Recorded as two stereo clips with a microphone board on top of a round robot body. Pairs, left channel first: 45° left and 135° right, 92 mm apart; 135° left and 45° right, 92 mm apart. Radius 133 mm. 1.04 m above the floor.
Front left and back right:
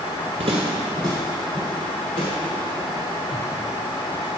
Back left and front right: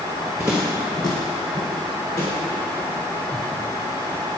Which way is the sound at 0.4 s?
125° right.